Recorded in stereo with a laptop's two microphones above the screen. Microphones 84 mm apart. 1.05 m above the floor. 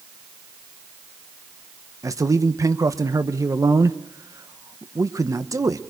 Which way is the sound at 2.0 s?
40° right (ahead or behind).